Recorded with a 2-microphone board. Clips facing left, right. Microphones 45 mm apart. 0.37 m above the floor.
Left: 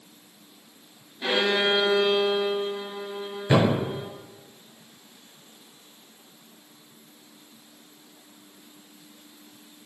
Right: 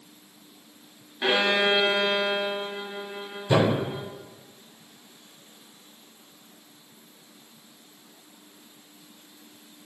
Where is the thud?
85° left, 1.4 m.